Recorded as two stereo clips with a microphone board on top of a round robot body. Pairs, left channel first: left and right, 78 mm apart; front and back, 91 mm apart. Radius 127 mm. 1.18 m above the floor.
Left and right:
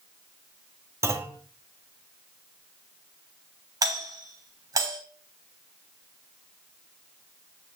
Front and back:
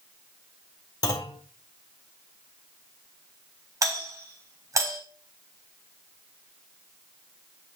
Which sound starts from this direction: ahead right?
A clunk, at 1.0 s.